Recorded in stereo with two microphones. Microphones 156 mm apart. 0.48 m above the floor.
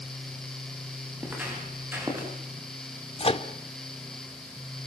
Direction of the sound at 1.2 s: 10° right (ahead or behind).